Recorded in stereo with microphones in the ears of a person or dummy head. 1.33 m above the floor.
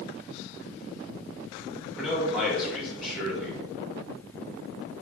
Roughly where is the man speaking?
Centre.